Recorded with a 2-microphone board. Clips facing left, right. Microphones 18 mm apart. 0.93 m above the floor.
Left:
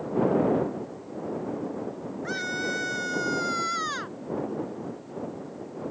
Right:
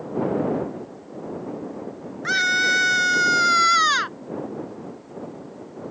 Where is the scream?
50° right (ahead or behind).